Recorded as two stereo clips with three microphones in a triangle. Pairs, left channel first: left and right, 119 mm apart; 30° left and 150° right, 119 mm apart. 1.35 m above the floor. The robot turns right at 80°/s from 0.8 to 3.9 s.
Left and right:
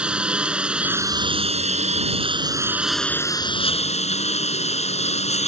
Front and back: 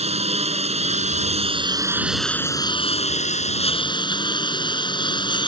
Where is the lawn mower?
170° right; by 5.5 s 75° left.